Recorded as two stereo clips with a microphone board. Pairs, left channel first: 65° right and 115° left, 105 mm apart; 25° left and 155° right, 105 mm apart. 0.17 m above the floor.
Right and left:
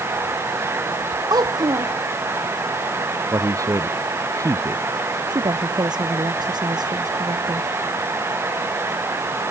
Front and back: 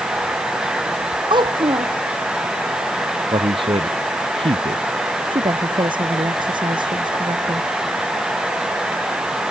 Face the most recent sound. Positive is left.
turn(degrees=160)